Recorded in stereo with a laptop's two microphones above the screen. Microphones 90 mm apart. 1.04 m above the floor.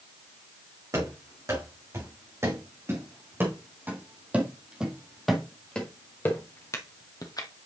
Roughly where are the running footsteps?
Right.